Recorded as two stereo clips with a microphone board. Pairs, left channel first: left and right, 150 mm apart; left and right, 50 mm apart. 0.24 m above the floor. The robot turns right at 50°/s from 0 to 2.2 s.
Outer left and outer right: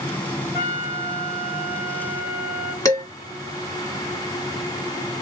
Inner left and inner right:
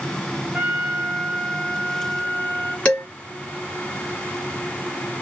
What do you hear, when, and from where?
0.5 s a trumpet: 25° right, 2 m; by 2.8 s 60° left, 2 m
2.9 s dishes clattering: 25° left (ahead or behind), 1.4 m